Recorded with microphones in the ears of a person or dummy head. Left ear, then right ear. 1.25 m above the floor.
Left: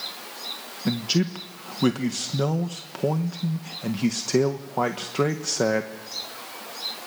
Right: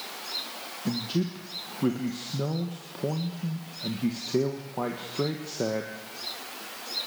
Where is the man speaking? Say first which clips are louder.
Left 6 dB; 55° left (ahead or behind), 1.3 m.